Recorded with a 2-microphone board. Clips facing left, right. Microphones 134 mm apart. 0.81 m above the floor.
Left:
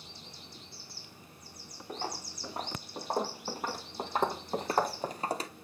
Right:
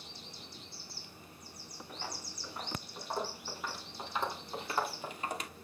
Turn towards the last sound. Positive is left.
turn(degrees=35)  # may be behind; listen again after turning